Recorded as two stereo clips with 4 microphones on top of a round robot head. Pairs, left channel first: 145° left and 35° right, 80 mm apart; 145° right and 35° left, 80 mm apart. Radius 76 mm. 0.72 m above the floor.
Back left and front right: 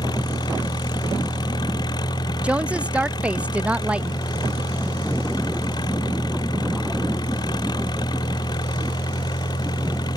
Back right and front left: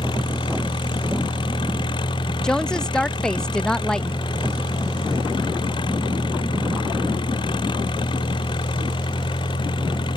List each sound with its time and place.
0.0 s an engine running: 175° right
2.4 s a woman speaking: 80° right